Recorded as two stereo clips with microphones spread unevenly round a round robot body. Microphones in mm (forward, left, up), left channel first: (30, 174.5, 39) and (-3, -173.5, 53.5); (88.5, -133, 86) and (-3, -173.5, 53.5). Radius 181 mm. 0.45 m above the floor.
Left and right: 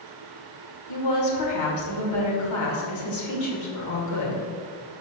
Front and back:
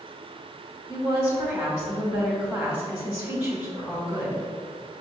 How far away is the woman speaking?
About 2 m.